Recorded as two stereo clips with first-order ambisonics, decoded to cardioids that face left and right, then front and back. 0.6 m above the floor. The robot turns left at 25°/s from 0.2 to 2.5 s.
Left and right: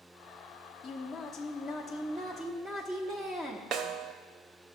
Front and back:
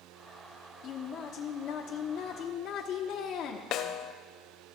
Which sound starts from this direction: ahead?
A woman speaking, at 0.8 s.